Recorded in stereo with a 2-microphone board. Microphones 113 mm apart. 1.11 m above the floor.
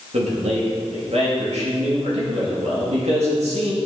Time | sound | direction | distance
0.1 | a man speaking | 70° right (ahead or behind) | 2.5 m